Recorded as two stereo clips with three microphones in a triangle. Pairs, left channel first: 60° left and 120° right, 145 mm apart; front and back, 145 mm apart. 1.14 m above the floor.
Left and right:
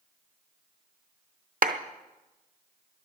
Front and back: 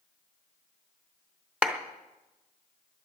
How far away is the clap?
About 0.8 m.